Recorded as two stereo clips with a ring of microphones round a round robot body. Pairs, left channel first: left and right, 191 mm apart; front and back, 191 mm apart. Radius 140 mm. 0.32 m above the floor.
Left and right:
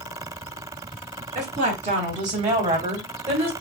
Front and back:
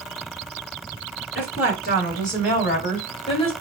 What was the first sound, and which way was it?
A woman speaking, 45° right.